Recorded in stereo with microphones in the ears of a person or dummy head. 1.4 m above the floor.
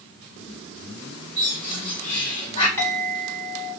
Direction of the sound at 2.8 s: 5° left (ahead or behind).